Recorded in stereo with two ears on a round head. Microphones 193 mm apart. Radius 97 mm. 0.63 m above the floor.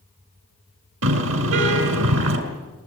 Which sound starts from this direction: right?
A car horn, at 1.0 s.